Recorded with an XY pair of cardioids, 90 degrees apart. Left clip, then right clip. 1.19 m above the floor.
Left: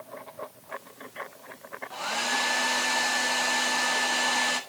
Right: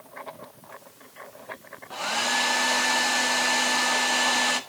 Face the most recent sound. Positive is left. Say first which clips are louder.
# right 3 dB
turn(degrees=-30)